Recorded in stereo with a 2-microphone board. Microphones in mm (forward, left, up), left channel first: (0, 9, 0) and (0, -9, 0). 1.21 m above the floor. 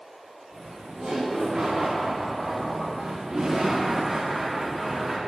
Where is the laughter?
80° right, 4 m; by 5.2 s 15° right (ahead or behind), 2.5 m.